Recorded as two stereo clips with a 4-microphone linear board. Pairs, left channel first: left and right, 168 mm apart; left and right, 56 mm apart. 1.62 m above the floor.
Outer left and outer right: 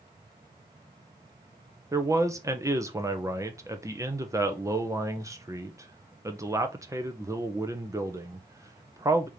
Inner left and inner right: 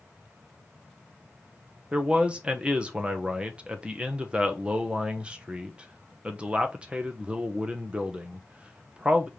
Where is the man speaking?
20° right (ahead or behind), 0.8 m.